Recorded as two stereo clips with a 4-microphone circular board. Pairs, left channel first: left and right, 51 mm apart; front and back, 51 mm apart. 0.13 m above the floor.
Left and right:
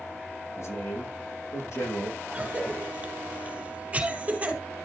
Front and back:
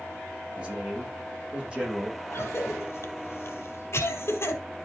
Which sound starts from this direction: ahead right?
A cough, at 2.3 s.